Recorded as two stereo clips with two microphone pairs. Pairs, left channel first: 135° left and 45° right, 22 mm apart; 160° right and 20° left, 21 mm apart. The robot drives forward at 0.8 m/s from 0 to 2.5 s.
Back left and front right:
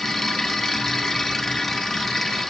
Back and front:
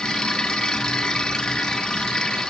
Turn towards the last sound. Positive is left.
No sound to turn to.